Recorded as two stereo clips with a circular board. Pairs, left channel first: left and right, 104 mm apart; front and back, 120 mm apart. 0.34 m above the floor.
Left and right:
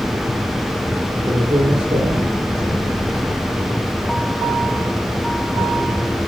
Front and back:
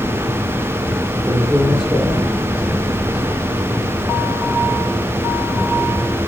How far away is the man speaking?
About 5.5 m.